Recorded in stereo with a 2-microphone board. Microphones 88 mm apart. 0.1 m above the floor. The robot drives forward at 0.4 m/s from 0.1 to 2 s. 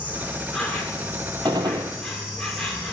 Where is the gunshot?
55° right (ahead or behind), 0.6 m; by 1.9 s 65° right (ahead or behind), 0.5 m.